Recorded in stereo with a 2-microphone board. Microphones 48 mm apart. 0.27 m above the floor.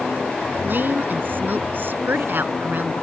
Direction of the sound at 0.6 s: 50° right (ahead or behind).